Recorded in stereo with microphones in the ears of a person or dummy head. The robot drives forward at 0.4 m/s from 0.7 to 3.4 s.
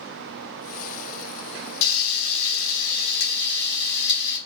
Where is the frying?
85° left, 0.8 m; by 4.4 s 50° left (ahead or behind), 1.1 m.